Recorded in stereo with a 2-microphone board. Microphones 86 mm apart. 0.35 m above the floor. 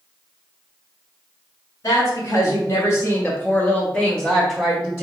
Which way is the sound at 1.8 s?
40° left (ahead or behind).